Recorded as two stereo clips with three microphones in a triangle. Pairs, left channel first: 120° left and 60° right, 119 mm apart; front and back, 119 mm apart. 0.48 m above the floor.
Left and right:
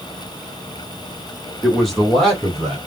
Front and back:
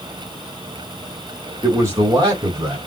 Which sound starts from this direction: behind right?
A man speaking, at 1.6 s.